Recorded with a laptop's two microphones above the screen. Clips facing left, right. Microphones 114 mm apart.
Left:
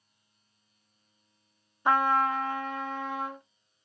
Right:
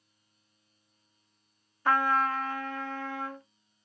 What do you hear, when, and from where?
1.9 s a trumpet: 20° left (ahead or behind), 0.6 m